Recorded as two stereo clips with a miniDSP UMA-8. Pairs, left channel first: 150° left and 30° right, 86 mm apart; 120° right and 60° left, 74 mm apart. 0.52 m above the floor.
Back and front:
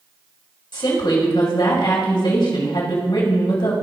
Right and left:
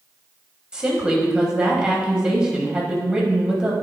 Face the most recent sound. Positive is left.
turn(degrees=140)